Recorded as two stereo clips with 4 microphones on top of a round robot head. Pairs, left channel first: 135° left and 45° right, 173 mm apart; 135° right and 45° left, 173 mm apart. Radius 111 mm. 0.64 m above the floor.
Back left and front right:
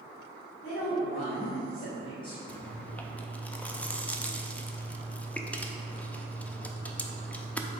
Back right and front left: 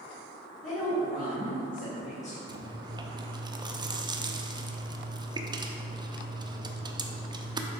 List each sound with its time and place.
0.6 s a woman speaking: 175° right, 2 m; by 2.4 s 170° right, 1.0 m
2.5 s chewing: 65° left, 0.7 m